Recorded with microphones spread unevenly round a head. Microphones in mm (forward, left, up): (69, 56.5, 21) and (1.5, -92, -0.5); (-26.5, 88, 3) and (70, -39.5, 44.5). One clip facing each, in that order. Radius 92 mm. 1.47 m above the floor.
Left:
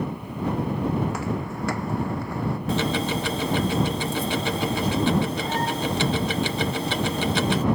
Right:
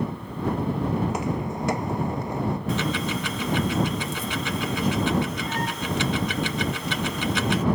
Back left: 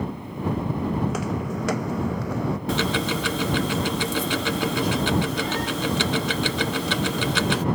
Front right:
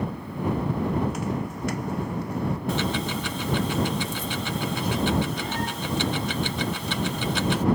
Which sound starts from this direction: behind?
Footsteps, at 1.0 s.